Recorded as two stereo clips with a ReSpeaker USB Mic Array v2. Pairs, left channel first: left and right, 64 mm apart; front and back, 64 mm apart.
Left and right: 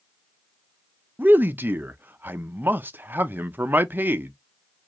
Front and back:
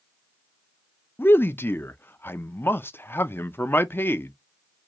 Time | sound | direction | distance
1.2 | a man speaking | 40° right | 0.6 m